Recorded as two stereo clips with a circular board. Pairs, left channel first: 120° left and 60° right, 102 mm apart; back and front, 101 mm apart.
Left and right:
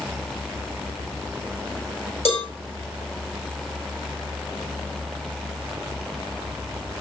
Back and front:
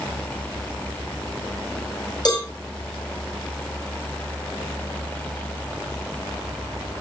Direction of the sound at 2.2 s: 135° left.